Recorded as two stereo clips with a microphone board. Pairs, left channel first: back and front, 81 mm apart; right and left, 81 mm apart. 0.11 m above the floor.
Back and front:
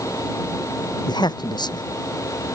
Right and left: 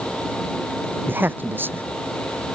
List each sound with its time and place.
1.1 s a man speaking: 155° left